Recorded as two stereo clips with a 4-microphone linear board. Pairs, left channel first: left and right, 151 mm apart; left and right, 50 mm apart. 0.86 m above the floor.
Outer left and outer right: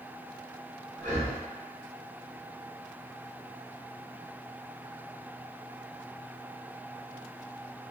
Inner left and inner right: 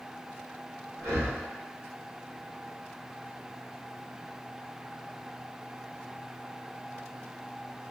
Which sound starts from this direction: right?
Breathing, at 1.0 s.